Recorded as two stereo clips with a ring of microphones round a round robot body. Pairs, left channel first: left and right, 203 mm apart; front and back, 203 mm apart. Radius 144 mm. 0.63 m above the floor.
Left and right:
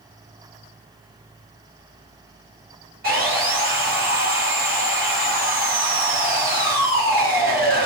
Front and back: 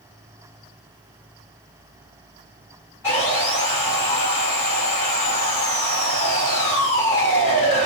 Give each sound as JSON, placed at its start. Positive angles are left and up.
{"t": 3.0, "sound": "sawing", "azimuth_deg": -75, "distance_m": 1.3}